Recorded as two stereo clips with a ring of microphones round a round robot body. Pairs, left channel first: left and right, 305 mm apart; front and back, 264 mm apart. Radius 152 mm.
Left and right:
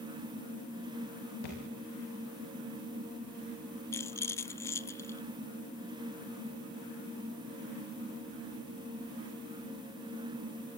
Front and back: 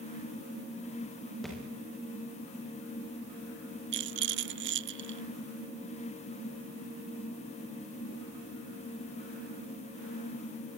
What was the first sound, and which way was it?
A thud, 90° left.